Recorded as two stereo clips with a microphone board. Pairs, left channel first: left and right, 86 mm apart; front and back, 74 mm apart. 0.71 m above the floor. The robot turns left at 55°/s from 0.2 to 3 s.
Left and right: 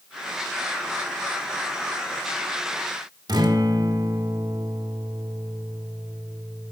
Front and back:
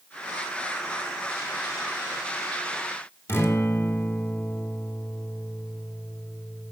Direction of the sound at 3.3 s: 55° right.